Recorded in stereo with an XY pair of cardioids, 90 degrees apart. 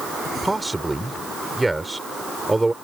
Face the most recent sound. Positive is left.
turn(degrees=-15)